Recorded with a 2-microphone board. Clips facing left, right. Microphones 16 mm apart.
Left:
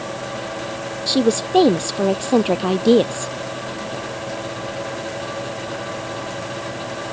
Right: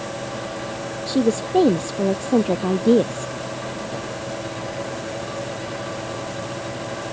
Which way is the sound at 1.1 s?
40° left (ahead or behind).